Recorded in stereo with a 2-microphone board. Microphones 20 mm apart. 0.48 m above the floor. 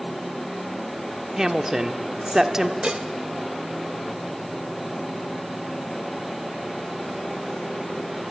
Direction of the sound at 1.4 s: 30° right (ahead or behind).